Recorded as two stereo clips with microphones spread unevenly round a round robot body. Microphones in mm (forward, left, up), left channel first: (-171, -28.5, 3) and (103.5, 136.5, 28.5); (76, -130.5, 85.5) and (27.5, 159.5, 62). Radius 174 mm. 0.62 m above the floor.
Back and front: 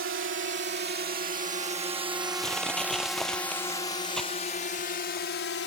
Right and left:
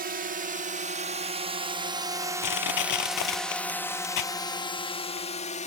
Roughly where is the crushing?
Ahead right.